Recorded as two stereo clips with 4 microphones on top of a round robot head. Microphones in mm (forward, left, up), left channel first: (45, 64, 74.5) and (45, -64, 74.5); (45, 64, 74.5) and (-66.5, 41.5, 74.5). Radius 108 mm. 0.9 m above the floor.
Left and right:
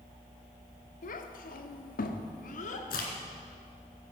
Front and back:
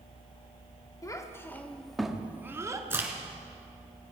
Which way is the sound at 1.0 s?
75° left.